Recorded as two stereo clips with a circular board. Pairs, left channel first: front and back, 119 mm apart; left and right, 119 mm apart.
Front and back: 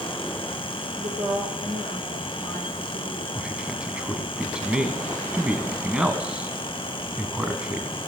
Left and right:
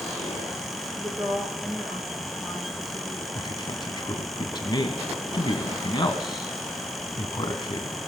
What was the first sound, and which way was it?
A woman speaking, 175° right.